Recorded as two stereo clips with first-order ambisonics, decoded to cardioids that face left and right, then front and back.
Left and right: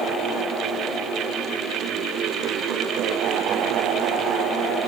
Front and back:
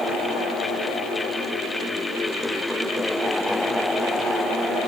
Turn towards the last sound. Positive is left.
No sound to turn to.